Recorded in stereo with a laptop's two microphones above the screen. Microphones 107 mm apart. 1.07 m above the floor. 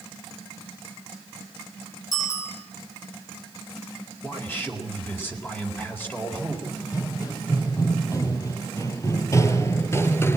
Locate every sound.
2.1 s a bicycle bell: 30° left (ahead or behind), 7 m
4.2 s a man speaking: 20° left (ahead or behind), 4 m
6.7 s running footsteps: 35° left (ahead or behind), 3 m; by 10.4 s 20° left (ahead or behind), 1.2 m